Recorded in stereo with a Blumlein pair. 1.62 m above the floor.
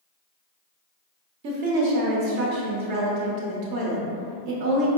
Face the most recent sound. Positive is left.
turn(degrees=-45)